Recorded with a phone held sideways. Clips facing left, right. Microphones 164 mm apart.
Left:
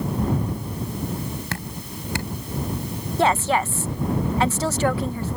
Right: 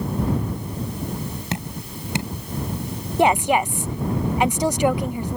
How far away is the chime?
I don't hear a chime.